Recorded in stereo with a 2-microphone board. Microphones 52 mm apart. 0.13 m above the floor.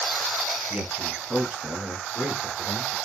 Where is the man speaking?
20° right (ahead or behind), 1.6 m; by 3.0 s 15° left (ahead or behind), 2 m.